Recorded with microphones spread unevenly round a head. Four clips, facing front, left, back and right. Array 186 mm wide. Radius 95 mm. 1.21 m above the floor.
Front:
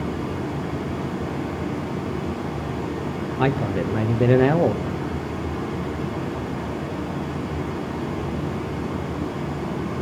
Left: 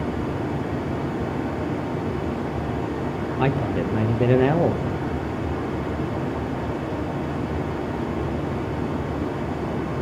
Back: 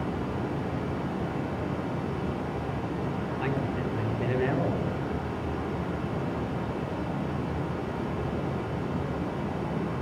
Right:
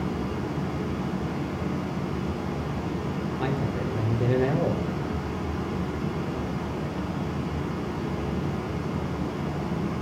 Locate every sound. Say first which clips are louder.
0.0 s running water: left 4 dB, front 4 dB; 65° left, 3.5 m
3.4 s a man speaking: left 7 dB, front 10 dB; 35° left, 0.8 m